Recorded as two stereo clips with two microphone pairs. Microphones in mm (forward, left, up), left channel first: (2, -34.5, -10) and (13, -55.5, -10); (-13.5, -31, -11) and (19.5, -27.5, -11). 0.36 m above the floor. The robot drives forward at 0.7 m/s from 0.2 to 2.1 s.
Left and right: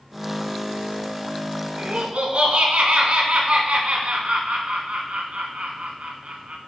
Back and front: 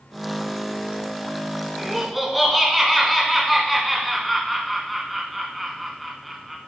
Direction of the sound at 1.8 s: 75° right.